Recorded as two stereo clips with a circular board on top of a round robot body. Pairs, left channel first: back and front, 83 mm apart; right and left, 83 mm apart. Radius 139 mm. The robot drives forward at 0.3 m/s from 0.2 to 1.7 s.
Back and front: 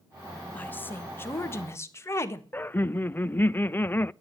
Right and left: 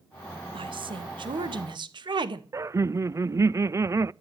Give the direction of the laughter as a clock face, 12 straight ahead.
8 o'clock.